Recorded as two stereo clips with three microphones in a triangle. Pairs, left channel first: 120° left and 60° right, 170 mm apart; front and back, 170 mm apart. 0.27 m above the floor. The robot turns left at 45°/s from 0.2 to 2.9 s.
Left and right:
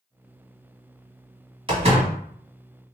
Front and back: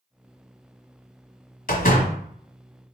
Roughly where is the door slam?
Ahead.